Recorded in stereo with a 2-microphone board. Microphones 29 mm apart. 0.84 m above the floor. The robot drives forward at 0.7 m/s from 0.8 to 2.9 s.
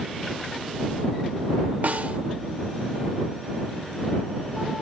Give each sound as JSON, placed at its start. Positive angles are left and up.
{"t": 1.8, "sound": "a snare drum", "side_deg": -65, "distance_m": 0.9}